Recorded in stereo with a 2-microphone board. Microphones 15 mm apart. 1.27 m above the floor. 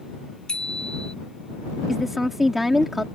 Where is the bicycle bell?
55° left (ahead or behind).